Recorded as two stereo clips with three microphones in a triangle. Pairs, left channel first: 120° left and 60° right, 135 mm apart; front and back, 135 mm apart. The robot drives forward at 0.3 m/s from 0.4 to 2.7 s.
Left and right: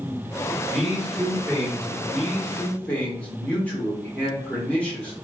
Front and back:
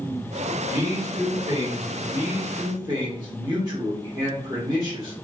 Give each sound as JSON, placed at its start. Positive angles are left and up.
{"t": 0.7, "sound": "a man speaking", "azimuth_deg": -150, "distance_m": 1.3}
{"t": 2.1, "sound": "a man speaking", "azimuth_deg": -170, "distance_m": 0.8}